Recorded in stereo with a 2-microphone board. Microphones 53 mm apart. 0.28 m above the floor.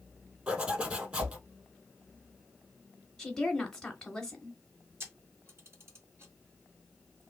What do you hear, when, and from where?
0.5 s a zipper: 25° right (ahead or behind), 2.0 m
3.2 s a woman speaking: 10° left (ahead or behind), 1.1 m
5.0 s a camera shutter: 50° right (ahead or behind), 2.5 m